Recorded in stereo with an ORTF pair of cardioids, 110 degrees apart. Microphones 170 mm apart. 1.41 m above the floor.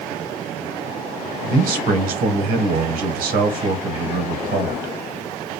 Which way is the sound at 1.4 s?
65° right.